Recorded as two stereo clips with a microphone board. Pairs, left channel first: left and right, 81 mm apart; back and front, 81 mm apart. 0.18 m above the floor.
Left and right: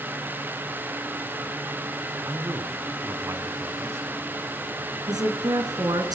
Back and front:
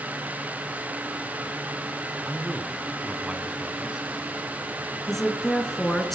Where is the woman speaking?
95° right, 2 m.